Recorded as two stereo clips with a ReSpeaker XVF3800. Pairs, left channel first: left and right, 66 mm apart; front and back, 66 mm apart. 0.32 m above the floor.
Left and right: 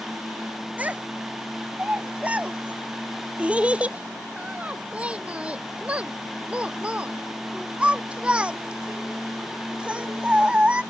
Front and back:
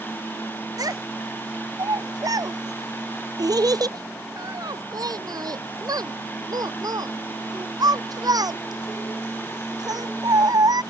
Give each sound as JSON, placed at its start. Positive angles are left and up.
{"t": 0.8, "sound": "a child speaking", "azimuth_deg": -160}